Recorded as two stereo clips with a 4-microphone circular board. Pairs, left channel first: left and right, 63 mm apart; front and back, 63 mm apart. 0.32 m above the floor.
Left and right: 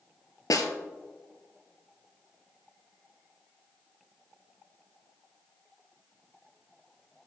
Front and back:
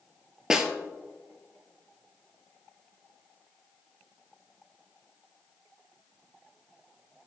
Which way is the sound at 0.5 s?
100° left.